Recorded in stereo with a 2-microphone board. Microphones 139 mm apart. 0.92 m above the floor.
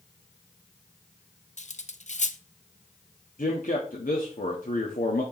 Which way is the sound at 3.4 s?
75° left (ahead or behind).